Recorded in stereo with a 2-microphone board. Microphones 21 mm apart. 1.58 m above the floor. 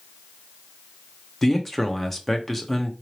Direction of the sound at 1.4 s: 10° left (ahead or behind).